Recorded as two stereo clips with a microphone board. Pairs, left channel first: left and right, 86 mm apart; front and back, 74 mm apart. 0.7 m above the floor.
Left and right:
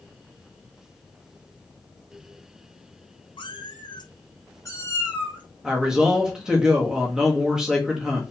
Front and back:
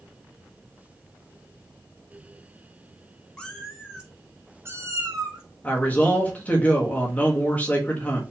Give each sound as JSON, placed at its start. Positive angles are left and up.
{"t": 3.4, "sound": "a cat meowing", "azimuth_deg": 80, "distance_m": 1.1}
{"t": 5.6, "sound": "a man speaking", "azimuth_deg": -25, "distance_m": 1.0}